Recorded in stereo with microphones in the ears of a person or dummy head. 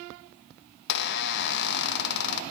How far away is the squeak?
About 0.8 m.